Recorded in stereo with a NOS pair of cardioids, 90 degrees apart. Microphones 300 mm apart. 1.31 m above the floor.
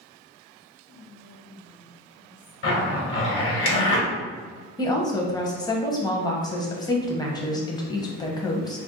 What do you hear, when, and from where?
0.9 s whispering: 50° left, 1.4 m
2.6 s a zipper: 45° left, 1.4 m
4.8 s a woman speaking: 15° left, 0.8 m